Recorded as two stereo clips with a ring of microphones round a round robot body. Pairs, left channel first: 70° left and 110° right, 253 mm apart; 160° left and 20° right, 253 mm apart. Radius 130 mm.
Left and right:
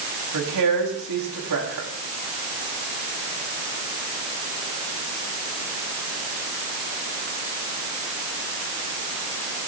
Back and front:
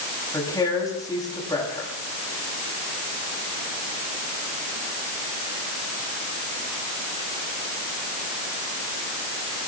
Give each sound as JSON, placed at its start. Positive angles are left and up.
{"t": 0.3, "sound": "a woman speaking", "azimuth_deg": -125, "distance_m": 7.0}